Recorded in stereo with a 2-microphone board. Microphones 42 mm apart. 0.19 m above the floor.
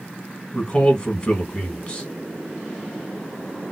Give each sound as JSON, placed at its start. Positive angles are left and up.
{"t": 0.5, "sound": "a man speaking", "side_deg": 20, "distance_m": 1.8}